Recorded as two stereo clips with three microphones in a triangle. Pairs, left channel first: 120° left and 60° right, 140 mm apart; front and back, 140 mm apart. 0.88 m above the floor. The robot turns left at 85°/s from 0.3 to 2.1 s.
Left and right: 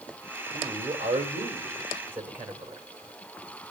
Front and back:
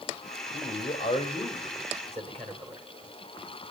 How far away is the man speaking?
About 3.5 m.